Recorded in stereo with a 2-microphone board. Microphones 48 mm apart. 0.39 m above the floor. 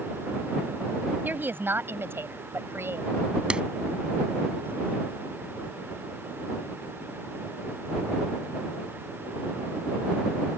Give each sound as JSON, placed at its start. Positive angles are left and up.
{"t": 1.2, "sound": "a woman speaking", "side_deg": -40}
{"t": 3.5, "sound": "a clap", "side_deg": -20}